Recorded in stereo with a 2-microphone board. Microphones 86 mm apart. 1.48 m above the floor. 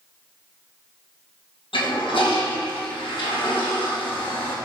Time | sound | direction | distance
1.7 | a toilet flushing | 85° left | 2.5 m